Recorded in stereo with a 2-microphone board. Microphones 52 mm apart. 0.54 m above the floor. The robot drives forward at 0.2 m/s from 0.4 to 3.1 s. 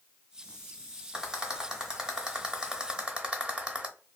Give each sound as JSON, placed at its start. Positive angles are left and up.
{"t": 1.1, "sound": "a rattle", "side_deg": -10, "distance_m": 1.0}